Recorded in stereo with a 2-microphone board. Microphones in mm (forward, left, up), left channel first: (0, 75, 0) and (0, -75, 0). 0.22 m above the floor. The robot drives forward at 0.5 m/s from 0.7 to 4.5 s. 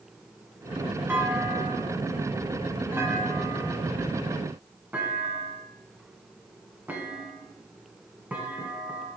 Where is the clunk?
15° right (ahead or behind), 1.1 m; by 9.1 s 10° right (ahead or behind), 1.3 m.